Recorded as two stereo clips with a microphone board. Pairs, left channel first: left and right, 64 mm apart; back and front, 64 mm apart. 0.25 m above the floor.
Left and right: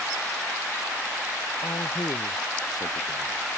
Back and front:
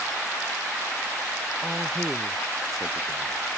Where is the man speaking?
90° left.